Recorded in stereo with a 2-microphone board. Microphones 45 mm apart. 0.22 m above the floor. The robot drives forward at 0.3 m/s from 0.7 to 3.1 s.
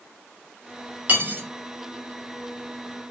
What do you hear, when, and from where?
1.1 s cutlery clinking: 45° right (ahead or behind), 0.9 m